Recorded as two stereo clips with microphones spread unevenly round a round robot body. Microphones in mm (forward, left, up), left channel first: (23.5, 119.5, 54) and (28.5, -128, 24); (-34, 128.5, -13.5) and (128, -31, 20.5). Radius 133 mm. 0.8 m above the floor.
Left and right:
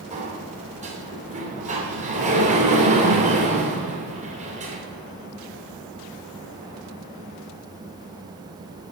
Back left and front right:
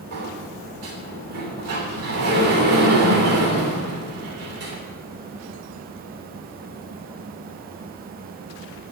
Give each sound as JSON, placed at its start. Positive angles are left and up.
{"t": 0.1, "sound": "a sliding door", "azimuth_deg": -30, "distance_m": 3.0}